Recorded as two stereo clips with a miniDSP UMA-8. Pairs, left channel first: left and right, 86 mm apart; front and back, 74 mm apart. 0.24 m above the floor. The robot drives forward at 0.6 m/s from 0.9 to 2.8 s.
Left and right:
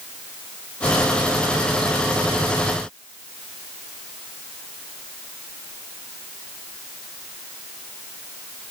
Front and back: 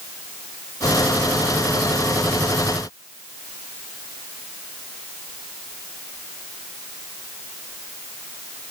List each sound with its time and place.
Only background noise.